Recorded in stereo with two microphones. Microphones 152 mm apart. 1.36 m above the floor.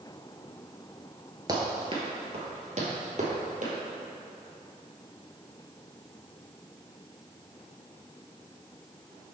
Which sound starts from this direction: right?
Running footsteps, at 1.5 s.